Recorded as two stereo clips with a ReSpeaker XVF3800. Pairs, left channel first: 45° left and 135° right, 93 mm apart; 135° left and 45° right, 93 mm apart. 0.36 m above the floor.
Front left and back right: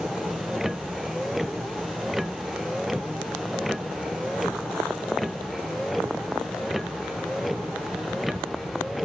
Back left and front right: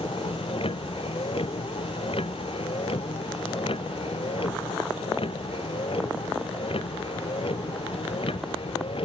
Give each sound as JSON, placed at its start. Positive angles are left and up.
{"t": 0.0, "sound": "a vehicle", "azimuth_deg": 140}